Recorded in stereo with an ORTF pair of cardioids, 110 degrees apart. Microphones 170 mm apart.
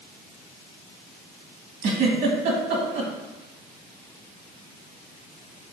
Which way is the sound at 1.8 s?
65° right.